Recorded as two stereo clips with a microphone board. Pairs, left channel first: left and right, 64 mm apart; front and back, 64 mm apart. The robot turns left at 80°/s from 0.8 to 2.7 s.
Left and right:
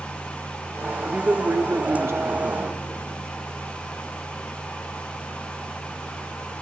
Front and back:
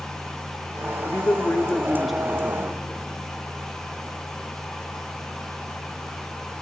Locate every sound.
1.1 s a man speaking: 10° right, 0.8 m; by 2.8 s 140° right, 0.8 m